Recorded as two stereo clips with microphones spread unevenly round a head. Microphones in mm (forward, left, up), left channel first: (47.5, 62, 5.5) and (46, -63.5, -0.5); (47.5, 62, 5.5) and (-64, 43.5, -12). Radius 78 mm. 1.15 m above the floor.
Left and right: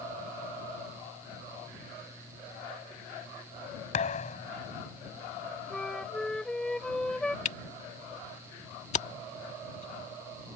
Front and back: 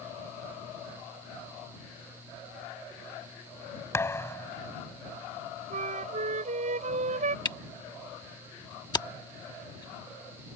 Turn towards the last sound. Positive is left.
turn(degrees=60)